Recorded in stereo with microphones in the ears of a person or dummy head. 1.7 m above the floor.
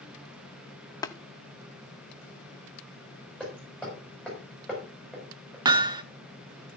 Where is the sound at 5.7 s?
25° right (ahead or behind), 0.7 m.